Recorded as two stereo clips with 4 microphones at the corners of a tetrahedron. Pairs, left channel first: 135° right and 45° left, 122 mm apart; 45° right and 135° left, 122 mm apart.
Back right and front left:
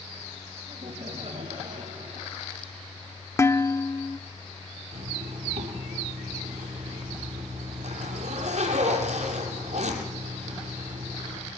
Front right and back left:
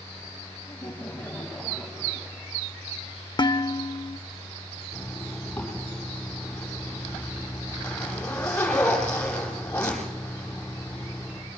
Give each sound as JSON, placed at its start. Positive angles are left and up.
{"t": 0.7, "sound": "laughter", "azimuth_deg": 20, "distance_m": 2.5}
{"t": 3.4, "sound": "dishes clattering", "azimuth_deg": -75, "distance_m": 0.6}
{"t": 4.9, "sound": "a zipper", "azimuth_deg": 30, "distance_m": 8.0}